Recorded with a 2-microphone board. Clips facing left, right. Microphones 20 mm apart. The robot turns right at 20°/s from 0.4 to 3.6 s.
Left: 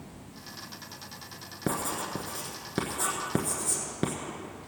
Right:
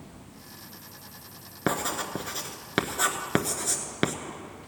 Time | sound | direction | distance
1.7 | writing | 40° right (ahead or behind) | 1.1 m